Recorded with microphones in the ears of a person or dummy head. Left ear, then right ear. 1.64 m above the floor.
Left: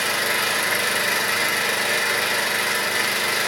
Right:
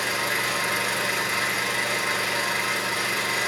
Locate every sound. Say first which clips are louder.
0.0 s an engine running: left 3 dB; 70° left (ahead or behind), 4 m